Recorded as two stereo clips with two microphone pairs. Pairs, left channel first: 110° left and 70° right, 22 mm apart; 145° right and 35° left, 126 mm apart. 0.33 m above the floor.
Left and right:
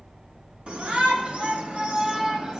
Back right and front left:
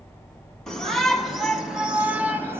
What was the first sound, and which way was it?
A shout, 55° right.